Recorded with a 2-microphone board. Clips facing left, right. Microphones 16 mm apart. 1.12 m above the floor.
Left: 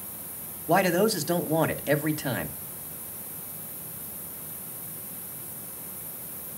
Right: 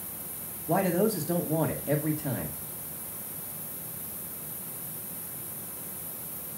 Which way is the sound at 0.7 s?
50° left (ahead or behind).